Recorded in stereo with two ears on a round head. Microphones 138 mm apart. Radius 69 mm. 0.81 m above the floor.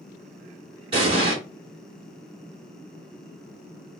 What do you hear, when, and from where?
0.9 s an explosion: 35° right (ahead or behind), 2.5 m